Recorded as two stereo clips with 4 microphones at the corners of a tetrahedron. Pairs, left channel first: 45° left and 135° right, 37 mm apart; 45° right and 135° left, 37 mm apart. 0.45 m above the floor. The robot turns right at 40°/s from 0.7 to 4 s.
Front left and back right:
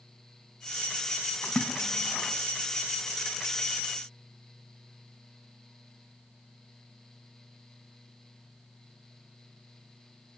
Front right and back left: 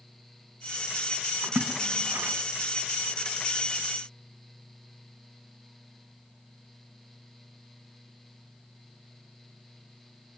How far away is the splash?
About 3.5 m.